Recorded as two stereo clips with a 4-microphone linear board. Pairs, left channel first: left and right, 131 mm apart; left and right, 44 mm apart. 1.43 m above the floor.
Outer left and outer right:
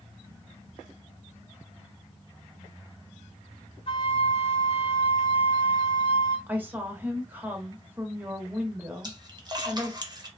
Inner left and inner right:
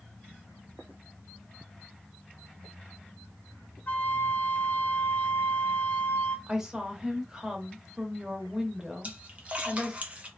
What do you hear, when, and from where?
3.9 s a flute: 45° left (ahead or behind), 0.5 m
6.5 s a woman speaking: 15° right (ahead or behind), 0.8 m
9.0 s a splash: 30° right (ahead or behind), 0.6 m